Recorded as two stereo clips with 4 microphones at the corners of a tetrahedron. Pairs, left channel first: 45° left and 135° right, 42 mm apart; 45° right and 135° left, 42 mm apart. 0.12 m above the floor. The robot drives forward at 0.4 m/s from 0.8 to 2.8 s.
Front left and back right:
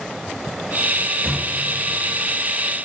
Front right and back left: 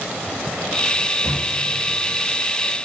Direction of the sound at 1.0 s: 25° right.